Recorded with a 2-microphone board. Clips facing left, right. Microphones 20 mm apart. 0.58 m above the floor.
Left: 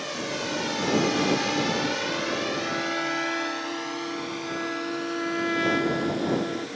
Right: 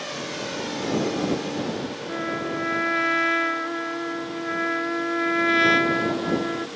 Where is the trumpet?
30° right (ahead or behind).